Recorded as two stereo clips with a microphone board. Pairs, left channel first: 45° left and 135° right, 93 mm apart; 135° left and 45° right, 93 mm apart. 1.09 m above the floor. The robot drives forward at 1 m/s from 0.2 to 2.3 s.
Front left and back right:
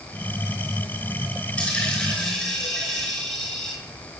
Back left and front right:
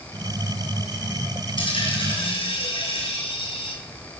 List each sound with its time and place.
1.6 s a dropped coin: 120° left, 5 m; by 3.8 s 125° left, 5 m